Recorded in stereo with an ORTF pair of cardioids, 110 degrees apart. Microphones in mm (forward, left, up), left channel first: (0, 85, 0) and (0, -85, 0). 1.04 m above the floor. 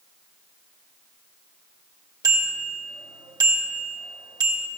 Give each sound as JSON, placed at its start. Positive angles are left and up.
{"t": 2.2, "sound": "a bicycle bell", "azimuth_deg": -25, "distance_m": 3.5}